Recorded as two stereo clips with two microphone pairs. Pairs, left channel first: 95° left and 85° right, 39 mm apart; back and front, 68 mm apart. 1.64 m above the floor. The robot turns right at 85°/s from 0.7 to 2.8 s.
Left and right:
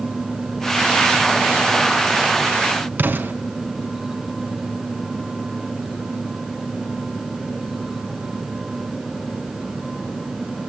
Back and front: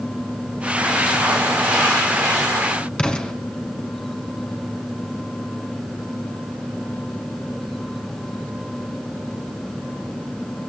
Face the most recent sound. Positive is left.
turn(degrees=-105)